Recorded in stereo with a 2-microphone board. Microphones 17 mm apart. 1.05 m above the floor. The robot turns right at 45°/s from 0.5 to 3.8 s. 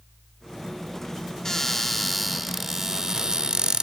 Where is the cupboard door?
155° left, 1.2 m; by 3.8 s 100° right, 1.2 m.